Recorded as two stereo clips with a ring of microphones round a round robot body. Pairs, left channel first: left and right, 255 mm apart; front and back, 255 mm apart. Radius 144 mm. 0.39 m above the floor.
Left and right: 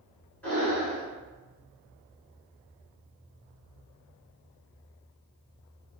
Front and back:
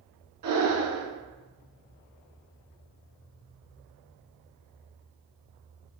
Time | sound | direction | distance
0.4 | breathing | 175° left | 1.2 m